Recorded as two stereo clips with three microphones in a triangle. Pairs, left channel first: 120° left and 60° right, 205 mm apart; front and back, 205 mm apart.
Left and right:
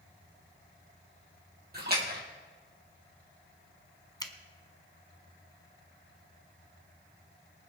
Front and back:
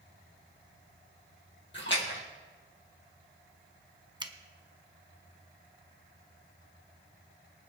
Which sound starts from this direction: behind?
A finger snap, at 4.2 s.